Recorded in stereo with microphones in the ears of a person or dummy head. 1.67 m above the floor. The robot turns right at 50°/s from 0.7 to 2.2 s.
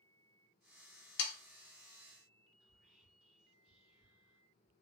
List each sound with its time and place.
1.2 s sawing: 65° left (ahead or behind), 0.6 m
2.6 s whispering: 5° right (ahead or behind), 1.4 m